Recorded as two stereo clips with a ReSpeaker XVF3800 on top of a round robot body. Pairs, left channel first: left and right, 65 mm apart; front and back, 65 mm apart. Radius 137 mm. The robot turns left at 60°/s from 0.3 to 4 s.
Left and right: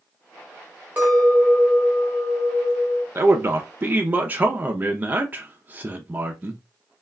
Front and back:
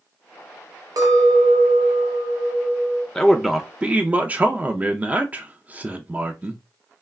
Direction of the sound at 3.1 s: 80° right.